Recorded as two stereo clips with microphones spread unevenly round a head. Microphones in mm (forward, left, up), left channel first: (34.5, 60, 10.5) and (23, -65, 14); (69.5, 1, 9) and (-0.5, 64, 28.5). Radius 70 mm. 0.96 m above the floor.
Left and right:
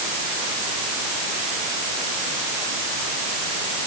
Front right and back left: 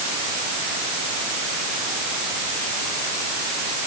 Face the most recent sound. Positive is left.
No sound to turn to.